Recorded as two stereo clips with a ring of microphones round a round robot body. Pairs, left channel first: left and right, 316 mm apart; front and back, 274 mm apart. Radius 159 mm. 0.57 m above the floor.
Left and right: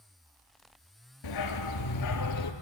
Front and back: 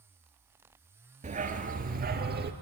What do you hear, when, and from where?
1.2 s a dog barking: 115° left, 4 m; by 2.5 s 125° left, 4.5 m